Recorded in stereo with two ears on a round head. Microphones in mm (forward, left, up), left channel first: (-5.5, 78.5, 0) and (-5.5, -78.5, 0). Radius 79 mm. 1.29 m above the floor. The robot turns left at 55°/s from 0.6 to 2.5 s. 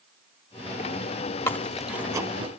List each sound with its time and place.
1.5 s chewing: 15° left (ahead or behind), 1.2 m; by 2.5 s 30° right (ahead or behind), 1.2 m